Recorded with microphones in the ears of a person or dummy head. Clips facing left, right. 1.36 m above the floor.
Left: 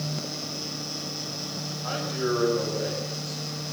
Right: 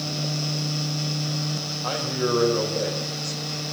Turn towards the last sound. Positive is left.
turn(degrees=-65)  # may be behind; listen again after turning